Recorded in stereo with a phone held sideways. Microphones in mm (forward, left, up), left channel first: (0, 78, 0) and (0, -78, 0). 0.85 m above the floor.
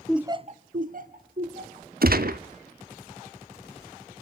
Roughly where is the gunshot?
Right.